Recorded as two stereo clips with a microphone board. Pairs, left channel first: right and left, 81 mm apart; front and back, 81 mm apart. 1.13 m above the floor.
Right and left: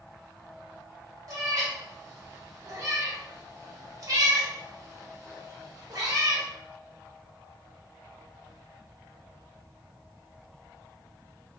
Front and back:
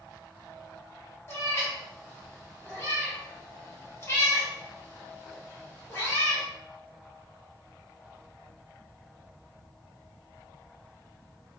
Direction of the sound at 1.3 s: 55° left.